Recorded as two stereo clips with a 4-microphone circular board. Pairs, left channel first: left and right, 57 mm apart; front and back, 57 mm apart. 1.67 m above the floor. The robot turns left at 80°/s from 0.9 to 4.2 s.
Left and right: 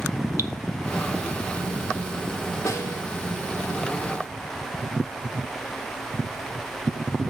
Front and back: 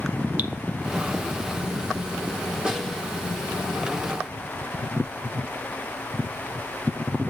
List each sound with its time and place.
0.4 s dripping: 125° right, 1.0 m
2.6 s a snare drum: 105° left, 3 m; by 3.0 s 75° left, 3 m